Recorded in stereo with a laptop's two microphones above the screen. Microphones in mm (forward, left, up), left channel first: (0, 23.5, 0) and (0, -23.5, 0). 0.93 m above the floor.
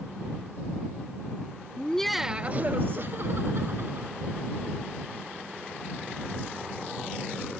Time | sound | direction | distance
1.8 | laughter | 30° left (ahead or behind) | ?